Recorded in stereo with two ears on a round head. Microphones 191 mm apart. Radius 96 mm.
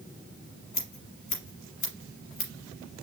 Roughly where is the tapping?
No tapping in this recording.